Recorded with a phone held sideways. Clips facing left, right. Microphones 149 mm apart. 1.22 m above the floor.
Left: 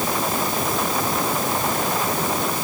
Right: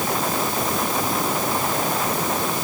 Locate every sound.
Only background noise.